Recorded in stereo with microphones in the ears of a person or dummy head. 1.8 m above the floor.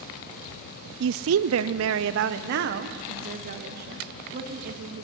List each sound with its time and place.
1.0 s a woman speaking: 70° right (ahead or behind), 0.7 m; by 5.0 s 45° right (ahead or behind), 3.5 m